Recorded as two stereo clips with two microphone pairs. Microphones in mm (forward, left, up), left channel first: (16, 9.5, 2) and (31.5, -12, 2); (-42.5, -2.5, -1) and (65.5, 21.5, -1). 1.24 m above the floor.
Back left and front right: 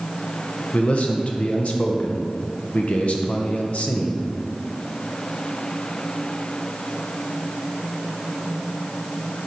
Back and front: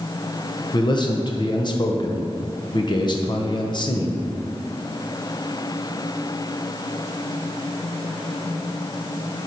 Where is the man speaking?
150° left, 0.6 m.